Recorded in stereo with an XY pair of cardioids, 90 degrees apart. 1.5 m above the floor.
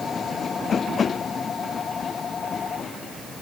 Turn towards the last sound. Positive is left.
No sound to turn to.